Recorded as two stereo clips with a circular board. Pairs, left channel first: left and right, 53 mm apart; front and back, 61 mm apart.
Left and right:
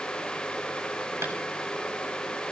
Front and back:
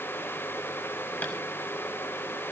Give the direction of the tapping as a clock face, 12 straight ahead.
2 o'clock.